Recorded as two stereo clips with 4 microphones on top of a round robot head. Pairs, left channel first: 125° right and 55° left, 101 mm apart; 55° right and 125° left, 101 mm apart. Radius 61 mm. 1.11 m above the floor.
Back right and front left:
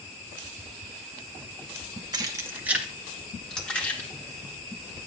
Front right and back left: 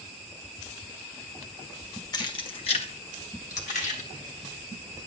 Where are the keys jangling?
Straight ahead, 1.2 m; by 5.1 s 60° right, 3 m.